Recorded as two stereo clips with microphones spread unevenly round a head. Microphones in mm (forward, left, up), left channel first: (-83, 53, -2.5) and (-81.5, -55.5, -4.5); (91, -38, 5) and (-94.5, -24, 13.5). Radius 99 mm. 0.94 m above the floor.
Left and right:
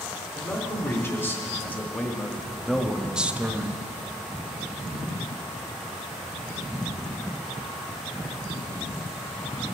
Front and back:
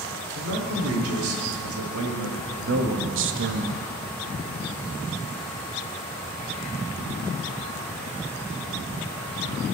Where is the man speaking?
155° left, 2.5 m; by 3.8 s 150° right, 0.9 m.